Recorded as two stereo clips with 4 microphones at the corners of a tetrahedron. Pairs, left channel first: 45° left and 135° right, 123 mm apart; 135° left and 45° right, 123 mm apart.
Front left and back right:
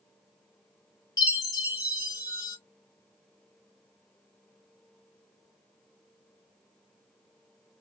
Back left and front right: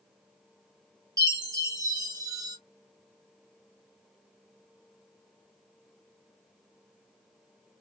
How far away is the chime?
About 1.1 m.